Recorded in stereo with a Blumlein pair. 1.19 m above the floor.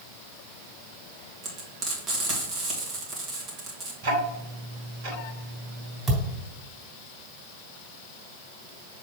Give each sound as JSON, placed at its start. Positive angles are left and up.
{"t": 1.4, "sound": "frying", "azimuth_deg": -30, "distance_m": 2.0}
{"t": 4.0, "sound": "ticking", "azimuth_deg": -55, "distance_m": 2.5}
{"t": 6.1, "sound": "a thud", "azimuth_deg": -10, "distance_m": 3.5}